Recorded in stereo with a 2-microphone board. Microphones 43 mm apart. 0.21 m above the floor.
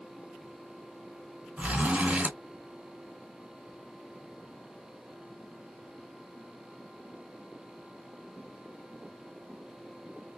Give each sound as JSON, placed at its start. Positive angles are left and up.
{"t": 1.6, "sound": "a zipper", "side_deg": -35, "distance_m": 1.8}